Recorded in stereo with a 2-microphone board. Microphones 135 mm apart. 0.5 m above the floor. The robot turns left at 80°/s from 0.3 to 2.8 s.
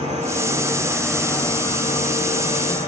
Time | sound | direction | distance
0.0 | an insect | 115° right | 4.5 m